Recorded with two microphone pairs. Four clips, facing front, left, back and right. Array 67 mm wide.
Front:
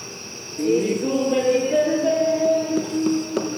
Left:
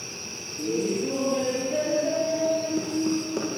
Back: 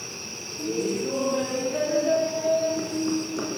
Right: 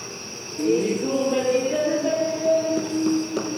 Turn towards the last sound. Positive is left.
turn(degrees=-5)